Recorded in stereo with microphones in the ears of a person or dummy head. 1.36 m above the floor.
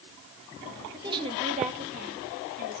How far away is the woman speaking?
About 1.7 m.